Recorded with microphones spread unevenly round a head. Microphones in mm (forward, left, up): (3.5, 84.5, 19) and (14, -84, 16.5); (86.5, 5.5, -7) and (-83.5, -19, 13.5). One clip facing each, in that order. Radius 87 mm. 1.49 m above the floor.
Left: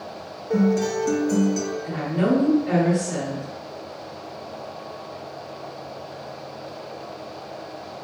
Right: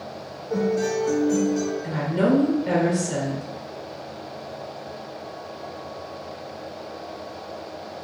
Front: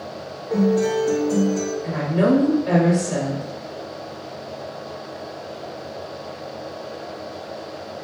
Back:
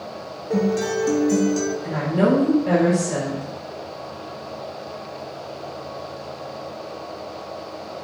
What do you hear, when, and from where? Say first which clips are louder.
0.5 s a guitar: left 2 dB, front 2 dB; 150° left, 1.1 m
1.8 s a woman speaking: even, front 1 dB; 100° right, 1.6 m